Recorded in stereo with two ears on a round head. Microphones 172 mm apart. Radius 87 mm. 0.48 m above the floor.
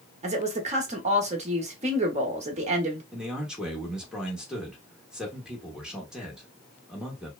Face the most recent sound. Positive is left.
turn(degrees=-5)  # may be behind; listen again after turning